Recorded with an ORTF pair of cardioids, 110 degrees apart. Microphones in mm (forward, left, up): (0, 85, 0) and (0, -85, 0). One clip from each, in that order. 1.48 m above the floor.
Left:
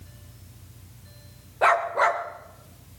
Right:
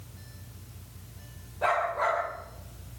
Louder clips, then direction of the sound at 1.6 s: Left 6 dB; 60° left.